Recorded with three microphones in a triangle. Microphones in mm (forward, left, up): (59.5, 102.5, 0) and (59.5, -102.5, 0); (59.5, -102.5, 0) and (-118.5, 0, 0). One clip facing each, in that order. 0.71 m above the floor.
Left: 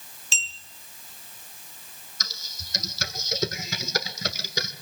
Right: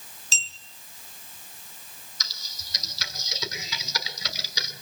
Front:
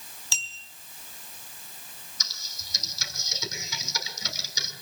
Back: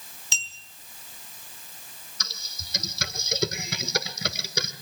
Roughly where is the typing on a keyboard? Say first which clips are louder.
Left 6 dB, back 5 dB; behind left.